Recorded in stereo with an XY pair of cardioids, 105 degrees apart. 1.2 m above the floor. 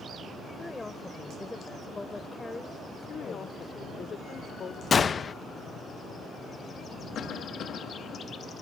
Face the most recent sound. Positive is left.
turn(degrees=65)